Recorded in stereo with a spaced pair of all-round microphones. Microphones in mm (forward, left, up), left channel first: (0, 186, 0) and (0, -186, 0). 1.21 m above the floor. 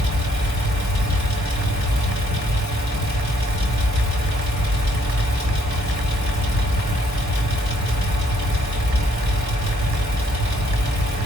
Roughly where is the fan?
Centre.